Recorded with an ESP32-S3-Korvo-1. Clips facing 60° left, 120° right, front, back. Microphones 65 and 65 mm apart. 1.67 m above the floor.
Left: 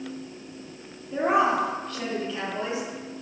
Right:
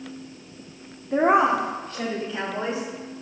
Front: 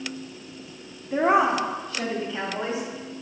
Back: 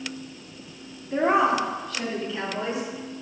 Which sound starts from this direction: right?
A woman speaking, at 1.1 s.